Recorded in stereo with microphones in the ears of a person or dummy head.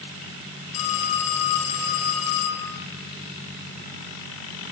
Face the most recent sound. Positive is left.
turn(degrees=85)